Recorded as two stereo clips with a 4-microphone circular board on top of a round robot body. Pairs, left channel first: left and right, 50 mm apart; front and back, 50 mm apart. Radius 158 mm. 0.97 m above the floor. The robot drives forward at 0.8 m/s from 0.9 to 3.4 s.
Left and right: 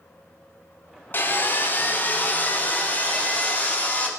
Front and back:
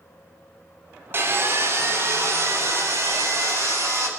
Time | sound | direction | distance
1.1 | sawing | 140° left | 3.5 m